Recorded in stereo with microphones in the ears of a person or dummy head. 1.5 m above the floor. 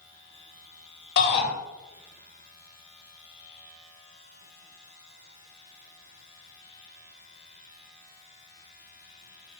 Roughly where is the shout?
Left.